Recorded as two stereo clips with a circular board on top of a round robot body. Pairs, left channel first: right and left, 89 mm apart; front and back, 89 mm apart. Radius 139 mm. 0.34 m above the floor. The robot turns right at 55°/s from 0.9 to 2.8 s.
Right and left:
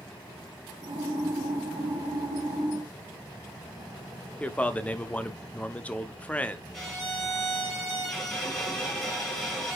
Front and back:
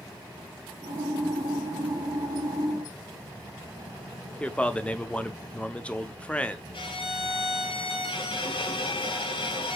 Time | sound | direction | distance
4.4 | a man speaking | 50° right | 0.9 m
6.7 | a violin | 5° right | 2 m